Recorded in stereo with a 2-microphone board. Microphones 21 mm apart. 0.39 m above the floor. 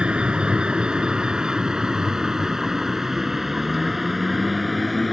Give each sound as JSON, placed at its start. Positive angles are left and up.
{"t": 0.0, "sound": "a vehicle", "side_deg": -50}